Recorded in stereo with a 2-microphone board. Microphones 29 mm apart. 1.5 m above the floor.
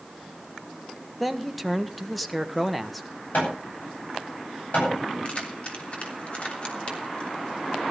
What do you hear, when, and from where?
1.2 s a man speaking: centre (ahead or behind), 1.5 m
3.3 s hammering: 60° left (ahead or behind), 9.5 m
5.2 s keys jangling: 40° left (ahead or behind), 3 m